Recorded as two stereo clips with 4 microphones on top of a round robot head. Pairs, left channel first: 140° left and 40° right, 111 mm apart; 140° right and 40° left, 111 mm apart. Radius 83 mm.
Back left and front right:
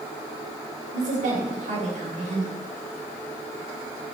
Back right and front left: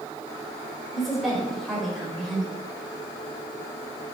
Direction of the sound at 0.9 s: 50° right.